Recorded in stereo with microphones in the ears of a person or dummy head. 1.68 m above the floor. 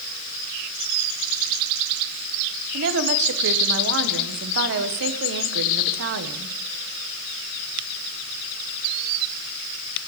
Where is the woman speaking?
65° right (ahead or behind), 1.0 m.